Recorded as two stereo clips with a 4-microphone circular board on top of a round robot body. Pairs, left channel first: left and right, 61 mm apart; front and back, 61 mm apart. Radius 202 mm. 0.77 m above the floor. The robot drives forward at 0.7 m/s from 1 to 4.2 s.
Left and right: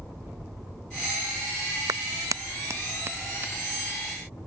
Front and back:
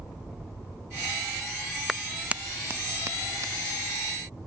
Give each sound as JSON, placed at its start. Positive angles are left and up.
{"t": 1.9, "sound": "a clap", "azimuth_deg": -90}